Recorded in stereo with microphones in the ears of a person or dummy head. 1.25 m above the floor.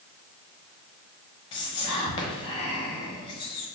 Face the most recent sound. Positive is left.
turn(degrees=35)  # may be behind; listen again after turning